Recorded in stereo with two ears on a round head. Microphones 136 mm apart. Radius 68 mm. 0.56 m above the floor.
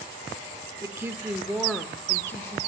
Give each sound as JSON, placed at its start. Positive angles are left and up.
{"t": 0.8, "sound": "a woman speaking", "side_deg": -20, "distance_m": 1.1}